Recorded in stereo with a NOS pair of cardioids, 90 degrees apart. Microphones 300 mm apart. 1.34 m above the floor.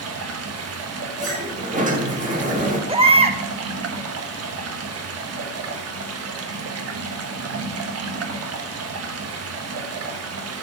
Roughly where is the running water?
Ahead right.